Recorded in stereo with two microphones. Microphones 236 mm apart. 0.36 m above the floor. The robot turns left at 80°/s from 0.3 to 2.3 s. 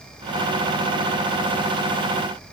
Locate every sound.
Only background noise.